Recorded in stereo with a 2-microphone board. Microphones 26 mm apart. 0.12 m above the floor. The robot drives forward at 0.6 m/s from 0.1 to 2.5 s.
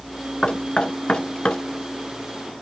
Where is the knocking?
30° left (ahead or behind), 1.2 m.